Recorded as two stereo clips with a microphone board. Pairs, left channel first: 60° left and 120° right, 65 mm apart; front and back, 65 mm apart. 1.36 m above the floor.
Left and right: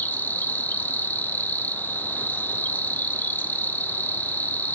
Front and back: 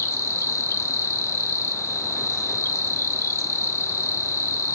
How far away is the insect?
About 0.9 m.